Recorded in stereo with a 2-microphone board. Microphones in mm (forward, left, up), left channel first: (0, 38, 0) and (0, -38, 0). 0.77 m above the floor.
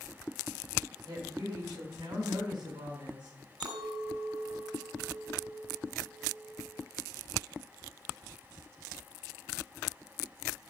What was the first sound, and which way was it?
A woman speaking, 75° right (ahead or behind).